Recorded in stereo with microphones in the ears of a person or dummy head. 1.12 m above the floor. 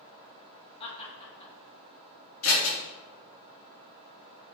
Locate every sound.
0.8 s laughter: 35° left (ahead or behind), 2 m
2.4 s scissors: 80° left, 3 m